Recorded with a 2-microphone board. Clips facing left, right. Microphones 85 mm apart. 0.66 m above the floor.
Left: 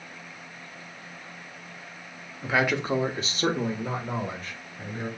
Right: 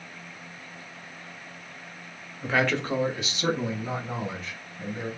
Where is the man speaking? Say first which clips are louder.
Even; centre (ahead or behind), 0.7 m; by 5.1 s 50° left (ahead or behind), 1.5 m.